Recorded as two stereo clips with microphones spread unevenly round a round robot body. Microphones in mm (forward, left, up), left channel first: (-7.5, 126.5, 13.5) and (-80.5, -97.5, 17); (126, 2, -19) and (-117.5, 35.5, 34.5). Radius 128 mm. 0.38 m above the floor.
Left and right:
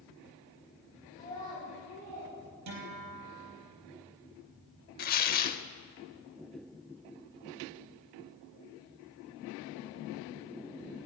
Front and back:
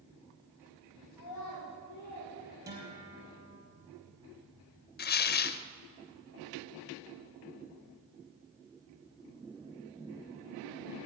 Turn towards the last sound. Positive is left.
turn(degrees=25)